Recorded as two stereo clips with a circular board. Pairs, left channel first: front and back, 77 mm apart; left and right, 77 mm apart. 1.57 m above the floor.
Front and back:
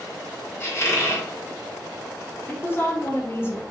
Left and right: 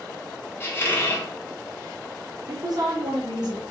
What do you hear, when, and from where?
0.6 s a squeak: 40° left, 0.9 m
2.5 s a woman speaking: 60° right, 0.6 m